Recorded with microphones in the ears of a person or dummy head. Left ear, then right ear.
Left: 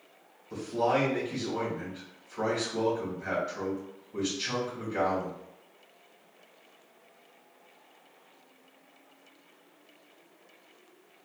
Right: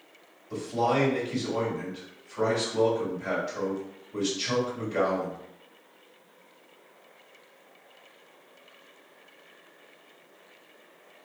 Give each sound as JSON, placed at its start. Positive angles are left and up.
{"t": 0.5, "sound": "a man speaking", "side_deg": -15, "distance_m": 2.0}